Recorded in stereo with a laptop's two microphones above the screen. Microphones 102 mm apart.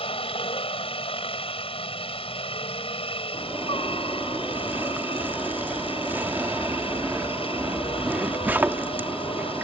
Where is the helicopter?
65° left (ahead or behind).